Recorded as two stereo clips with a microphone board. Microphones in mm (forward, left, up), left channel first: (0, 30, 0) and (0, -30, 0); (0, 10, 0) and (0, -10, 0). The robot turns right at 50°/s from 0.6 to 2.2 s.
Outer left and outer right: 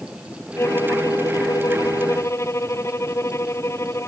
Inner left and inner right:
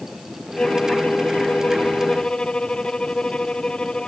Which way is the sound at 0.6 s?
50° left.